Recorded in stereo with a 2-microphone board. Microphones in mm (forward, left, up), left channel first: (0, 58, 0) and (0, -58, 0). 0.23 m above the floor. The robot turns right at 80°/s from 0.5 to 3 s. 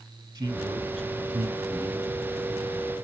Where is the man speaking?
135° right, 2.5 m; by 2.4 s 15° left, 2.5 m.